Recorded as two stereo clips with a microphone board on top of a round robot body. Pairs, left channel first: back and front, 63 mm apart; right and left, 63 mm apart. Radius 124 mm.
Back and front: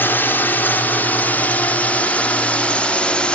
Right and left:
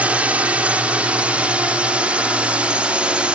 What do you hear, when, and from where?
0.0 s a drone: 145° left; by 3.4 s 135° left